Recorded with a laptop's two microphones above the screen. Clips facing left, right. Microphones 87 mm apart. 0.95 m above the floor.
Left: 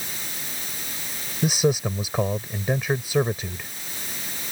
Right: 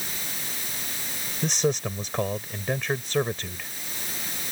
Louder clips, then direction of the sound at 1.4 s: Left 4 dB; 10° left (ahead or behind).